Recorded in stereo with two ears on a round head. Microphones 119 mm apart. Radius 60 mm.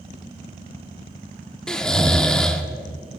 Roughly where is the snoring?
Centre.